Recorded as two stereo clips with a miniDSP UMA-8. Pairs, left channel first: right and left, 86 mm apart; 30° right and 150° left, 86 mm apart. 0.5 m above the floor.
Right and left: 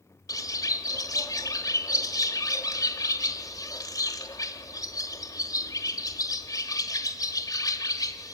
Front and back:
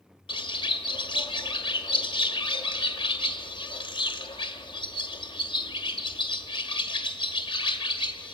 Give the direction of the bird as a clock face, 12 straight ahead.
1 o'clock.